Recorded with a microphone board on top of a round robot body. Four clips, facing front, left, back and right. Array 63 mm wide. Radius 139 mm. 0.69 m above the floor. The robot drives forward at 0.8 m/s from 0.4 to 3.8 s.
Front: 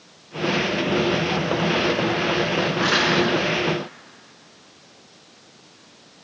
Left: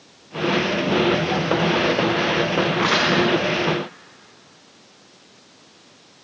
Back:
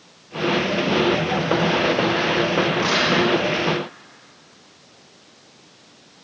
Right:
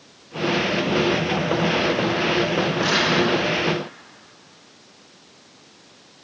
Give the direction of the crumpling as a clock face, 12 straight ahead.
9 o'clock.